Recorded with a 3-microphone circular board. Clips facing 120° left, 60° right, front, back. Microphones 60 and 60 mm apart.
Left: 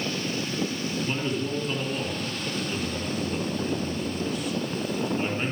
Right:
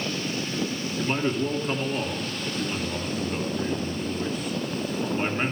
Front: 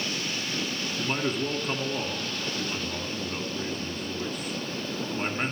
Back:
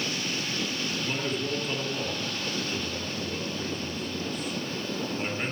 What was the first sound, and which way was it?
A man speaking, 15° right.